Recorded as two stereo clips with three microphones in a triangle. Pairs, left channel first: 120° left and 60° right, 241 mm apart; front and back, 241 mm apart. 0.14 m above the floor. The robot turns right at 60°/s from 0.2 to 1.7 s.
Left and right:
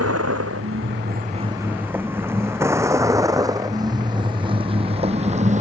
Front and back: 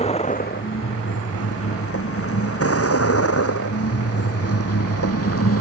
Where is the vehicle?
65° right; by 5.6 s straight ahead.